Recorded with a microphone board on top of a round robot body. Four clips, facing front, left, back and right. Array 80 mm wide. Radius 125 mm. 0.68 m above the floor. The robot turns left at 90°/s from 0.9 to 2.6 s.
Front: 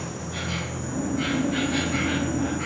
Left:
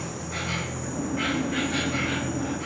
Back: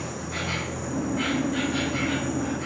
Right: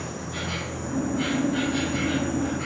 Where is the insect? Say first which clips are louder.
Even, back 1 dB; 125° left, 1.2 m; by 2.7 s 25° right, 1.2 m.